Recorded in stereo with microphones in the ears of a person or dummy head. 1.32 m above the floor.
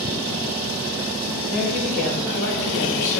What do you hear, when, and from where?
1.5 s a woman speaking: 50° left (ahead or behind), 3.5 m; by 3.2 s 65° left (ahead or behind), 3.5 m